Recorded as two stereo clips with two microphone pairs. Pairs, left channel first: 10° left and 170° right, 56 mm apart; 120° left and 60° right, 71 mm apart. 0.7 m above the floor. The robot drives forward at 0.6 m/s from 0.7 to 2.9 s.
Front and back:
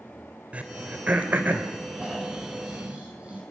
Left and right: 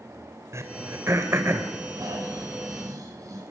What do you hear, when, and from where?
0.5 s throat clearing: 105° right, 3 m; by 1.7 s 120° right, 3 m
1.9 s snoring: 100° right, 8.5 m; by 3.4 s 105° right, 8.5 m